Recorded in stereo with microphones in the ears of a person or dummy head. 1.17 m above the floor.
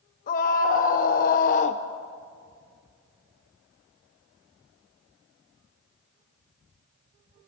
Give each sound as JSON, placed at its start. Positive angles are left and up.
{"t": 0.3, "sound": "a scream", "side_deg": 40, "distance_m": 1.7}